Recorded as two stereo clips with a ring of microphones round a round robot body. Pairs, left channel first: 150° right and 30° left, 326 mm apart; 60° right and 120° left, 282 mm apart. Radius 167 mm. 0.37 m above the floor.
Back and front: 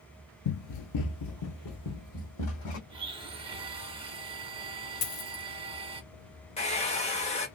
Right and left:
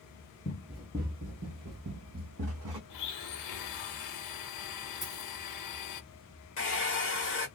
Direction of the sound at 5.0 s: 140° right.